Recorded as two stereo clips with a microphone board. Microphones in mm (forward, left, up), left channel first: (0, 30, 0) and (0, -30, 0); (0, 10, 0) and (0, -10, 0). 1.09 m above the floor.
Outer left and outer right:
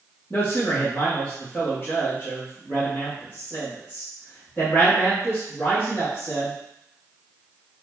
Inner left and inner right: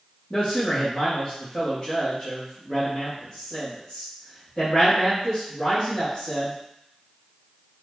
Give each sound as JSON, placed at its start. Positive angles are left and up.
{"t": 0.3, "sound": "a man speaking", "side_deg": 25, "distance_m": 2.5}